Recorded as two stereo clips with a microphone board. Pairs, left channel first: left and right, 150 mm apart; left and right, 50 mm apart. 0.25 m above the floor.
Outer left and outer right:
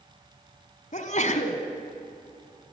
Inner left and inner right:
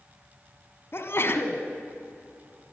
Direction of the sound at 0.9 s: 55° left (ahead or behind).